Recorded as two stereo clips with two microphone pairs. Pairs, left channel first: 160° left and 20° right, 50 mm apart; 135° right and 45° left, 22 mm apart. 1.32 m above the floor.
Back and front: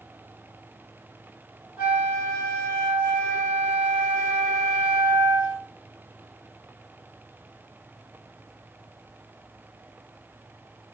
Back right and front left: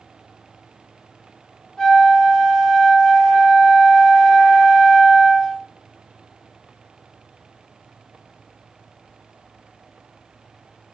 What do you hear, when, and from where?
1.8 s a flute: 70° right, 1.0 m